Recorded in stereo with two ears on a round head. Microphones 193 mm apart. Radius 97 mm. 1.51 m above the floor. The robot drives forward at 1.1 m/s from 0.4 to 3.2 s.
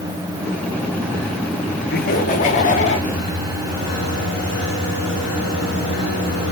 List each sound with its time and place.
1.9 s laughter: 45° left (ahead or behind), 3 m; by 3.0 s 35° left (ahead or behind), 4 m